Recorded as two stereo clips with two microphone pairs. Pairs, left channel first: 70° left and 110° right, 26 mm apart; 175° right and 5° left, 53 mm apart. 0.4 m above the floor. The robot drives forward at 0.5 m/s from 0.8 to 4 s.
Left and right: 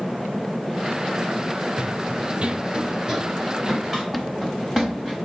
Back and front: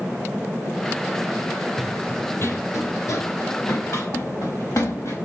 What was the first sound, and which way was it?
Running footsteps, 70° right.